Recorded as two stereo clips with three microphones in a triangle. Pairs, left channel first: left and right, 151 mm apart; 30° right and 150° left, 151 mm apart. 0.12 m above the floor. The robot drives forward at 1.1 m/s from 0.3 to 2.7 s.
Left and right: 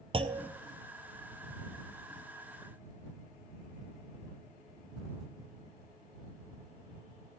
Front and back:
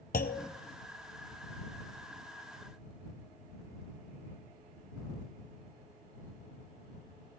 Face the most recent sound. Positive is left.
turn(degrees=-170)